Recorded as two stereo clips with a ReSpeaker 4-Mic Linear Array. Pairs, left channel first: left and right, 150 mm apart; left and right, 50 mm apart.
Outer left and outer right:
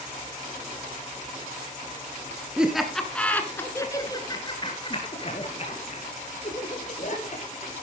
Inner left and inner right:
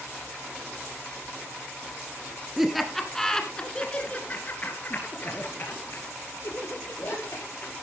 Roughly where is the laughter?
Centre.